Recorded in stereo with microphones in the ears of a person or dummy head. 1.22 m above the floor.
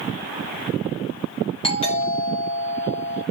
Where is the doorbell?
30° left (ahead or behind), 3.5 m.